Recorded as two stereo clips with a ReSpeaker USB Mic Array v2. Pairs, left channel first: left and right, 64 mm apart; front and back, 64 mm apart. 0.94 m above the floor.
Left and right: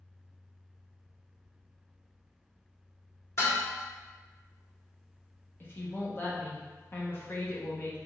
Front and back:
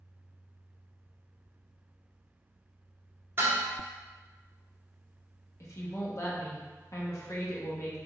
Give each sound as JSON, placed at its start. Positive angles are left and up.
{"t": 3.4, "sound": "dishes clattering", "azimuth_deg": 130, "distance_m": 1.3}
{"t": 5.6, "sound": "a woman speaking", "azimuth_deg": 35, "distance_m": 0.8}